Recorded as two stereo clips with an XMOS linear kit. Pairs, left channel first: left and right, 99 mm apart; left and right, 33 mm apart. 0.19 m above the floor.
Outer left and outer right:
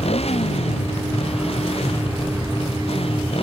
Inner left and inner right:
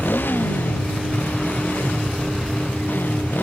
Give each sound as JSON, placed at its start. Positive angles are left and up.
{"t": 0.0, "sound": "a motorcycle", "side_deg": 75}